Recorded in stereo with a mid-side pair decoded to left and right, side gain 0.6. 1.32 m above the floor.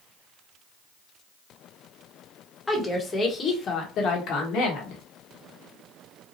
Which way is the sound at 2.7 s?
20° left.